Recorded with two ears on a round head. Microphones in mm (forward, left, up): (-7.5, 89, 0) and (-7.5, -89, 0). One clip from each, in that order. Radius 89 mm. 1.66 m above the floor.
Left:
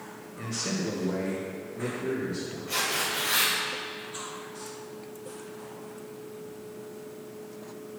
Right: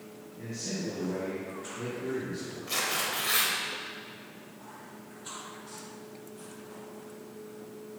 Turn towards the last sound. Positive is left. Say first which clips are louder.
# left 2 dB
turn(degrees=-30)  # may be behind; listen again after turning